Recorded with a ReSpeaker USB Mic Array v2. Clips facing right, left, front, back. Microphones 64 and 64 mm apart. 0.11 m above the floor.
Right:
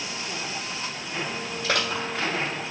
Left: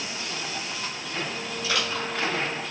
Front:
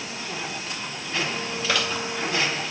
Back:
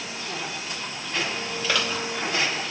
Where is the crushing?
75° right, 2.5 m.